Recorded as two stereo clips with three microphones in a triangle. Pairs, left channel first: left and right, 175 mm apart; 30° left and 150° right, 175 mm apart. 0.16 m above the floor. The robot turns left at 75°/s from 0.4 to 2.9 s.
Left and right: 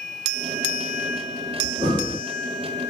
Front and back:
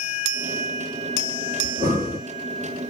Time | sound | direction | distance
1.6 | breathing | 130° right | 1.3 m